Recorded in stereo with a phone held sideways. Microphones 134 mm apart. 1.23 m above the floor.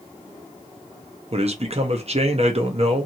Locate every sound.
1.3 s a man speaking: 55° right (ahead or behind), 0.7 m